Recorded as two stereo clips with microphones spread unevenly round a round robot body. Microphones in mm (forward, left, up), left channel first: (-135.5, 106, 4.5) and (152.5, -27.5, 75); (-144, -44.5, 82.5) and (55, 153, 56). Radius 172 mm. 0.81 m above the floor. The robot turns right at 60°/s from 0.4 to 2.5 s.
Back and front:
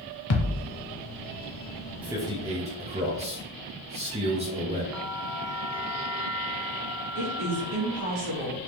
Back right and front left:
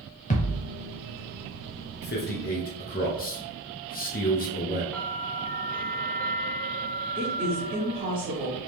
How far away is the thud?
About 0.6 m.